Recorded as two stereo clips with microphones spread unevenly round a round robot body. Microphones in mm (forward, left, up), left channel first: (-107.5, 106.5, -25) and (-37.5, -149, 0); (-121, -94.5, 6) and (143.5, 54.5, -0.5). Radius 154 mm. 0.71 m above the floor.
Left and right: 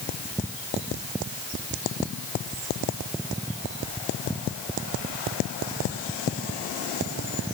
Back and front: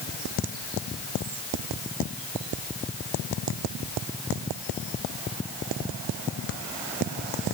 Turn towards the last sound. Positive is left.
No sound to turn to.